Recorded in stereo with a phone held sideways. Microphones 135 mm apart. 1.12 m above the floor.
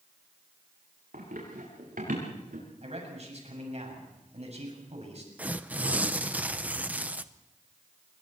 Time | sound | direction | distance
1.1 | running footsteps | 80° right | 7.5 m
2.8 | a man speaking | 55° right (ahead or behind) | 6.5 m
5.4 | tearing paper | 10° right (ahead or behind) | 0.7 m